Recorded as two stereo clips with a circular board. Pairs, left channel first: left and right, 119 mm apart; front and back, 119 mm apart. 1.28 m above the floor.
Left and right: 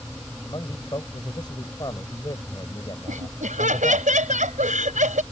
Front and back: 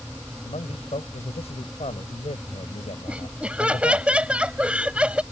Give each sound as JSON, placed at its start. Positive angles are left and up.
{"t": 0.5, "sound": "a man speaking", "azimuth_deg": 35}
{"t": 3.1, "sound": "laughter", "azimuth_deg": -100}